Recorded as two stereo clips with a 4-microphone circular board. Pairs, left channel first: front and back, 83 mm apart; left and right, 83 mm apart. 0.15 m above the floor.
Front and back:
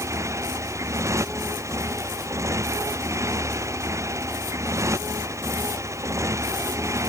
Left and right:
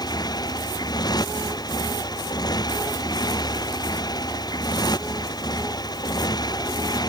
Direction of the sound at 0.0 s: 125° left.